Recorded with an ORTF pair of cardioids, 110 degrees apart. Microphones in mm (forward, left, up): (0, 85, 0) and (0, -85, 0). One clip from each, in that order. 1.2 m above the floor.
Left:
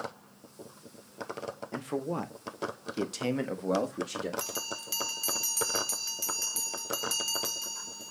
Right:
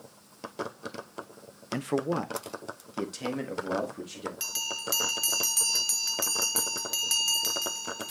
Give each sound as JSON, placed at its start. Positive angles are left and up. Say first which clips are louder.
{"t": 1.7, "sound": "a man speaking", "louder": "right 6 dB", "azimuth_deg": -35, "distance_m": 0.7}
{"t": 4.4, "sound": "a bell", "louder": "right 4 dB", "azimuth_deg": -20, "distance_m": 0.5}